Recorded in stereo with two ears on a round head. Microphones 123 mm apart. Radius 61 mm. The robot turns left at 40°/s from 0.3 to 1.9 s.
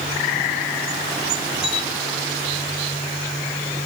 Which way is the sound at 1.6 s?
80° left.